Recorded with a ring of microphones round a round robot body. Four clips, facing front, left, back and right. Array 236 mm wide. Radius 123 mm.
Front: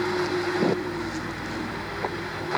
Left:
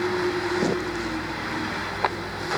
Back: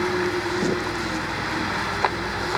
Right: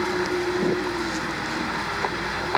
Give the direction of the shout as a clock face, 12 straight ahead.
No shout in this recording.